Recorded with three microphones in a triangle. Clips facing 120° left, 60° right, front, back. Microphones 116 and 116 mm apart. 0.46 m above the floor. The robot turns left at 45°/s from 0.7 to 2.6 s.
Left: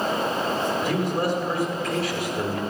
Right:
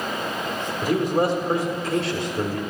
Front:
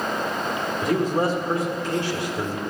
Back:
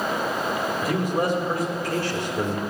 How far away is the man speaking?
About 1.4 m.